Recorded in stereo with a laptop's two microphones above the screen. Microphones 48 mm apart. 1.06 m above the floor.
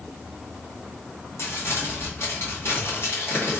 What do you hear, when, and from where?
1.4 s crumpling: 60° left (ahead or behind), 1.7 m